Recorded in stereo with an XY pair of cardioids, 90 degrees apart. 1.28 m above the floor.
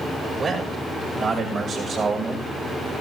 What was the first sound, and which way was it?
A man speaking, 50° right.